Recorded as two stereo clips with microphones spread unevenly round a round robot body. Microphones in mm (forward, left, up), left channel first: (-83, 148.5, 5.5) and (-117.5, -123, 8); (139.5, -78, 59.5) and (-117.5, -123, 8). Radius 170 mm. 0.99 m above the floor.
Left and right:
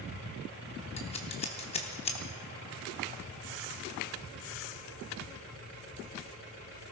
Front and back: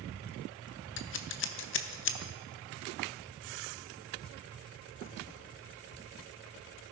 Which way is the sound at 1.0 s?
15° left.